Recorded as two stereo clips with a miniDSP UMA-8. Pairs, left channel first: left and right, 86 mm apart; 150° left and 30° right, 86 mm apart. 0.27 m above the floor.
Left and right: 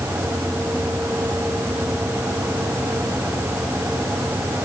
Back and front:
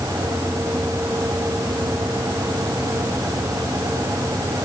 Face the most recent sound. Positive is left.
No sound to turn to.